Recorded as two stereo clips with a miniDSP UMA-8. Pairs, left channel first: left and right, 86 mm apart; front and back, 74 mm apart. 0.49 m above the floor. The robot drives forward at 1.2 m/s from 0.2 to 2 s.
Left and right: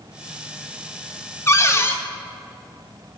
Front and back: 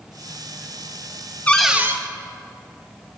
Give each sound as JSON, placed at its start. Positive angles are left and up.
{"t": 1.5, "sound": "a cupboard door", "azimuth_deg": 55, "distance_m": 0.6}